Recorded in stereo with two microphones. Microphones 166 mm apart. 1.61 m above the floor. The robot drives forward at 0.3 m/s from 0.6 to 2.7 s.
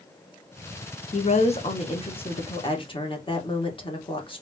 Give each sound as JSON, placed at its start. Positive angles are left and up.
{"t": 1.1, "sound": "a woman speaking", "side_deg": 40, "distance_m": 1.1}